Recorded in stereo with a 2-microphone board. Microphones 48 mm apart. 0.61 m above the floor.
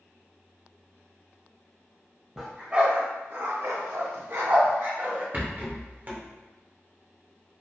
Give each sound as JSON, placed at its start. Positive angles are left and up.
{"t": 2.4, "sound": "a dog barking", "side_deg": -10, "distance_m": 0.7}
{"t": 5.3, "sound": "a rattle", "side_deg": -35, "distance_m": 0.6}